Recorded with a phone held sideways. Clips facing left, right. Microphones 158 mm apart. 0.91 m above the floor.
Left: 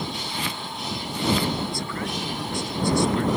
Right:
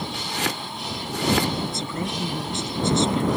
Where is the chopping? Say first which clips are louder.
Right 3 dB; 80° right.